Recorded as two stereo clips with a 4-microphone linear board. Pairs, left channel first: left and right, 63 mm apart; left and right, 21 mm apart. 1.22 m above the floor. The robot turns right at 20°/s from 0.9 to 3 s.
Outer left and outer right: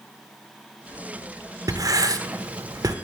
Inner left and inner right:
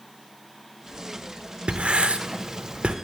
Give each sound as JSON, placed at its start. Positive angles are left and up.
{"t": 1.7, "sound": "writing", "side_deg": -70, "distance_m": 0.6}